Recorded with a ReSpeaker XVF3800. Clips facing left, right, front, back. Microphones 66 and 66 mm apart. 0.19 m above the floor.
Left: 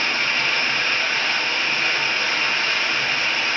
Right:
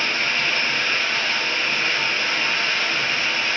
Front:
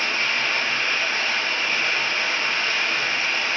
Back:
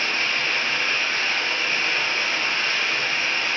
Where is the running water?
40° left, 1.4 m.